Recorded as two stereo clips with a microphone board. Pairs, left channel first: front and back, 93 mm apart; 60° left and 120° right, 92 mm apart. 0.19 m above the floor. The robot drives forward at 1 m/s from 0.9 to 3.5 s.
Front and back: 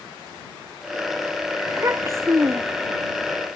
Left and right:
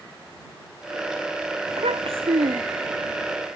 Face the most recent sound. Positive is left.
turn(degrees=-130)